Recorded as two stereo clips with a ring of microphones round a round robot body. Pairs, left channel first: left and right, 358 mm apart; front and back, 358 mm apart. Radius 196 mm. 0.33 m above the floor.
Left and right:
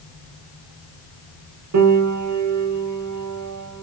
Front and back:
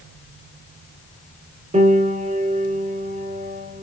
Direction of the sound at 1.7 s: 115° right.